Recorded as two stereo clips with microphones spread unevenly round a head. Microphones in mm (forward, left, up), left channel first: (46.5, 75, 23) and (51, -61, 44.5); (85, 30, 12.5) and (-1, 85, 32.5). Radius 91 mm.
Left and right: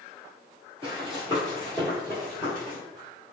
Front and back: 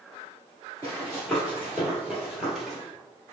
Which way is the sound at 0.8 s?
125° right.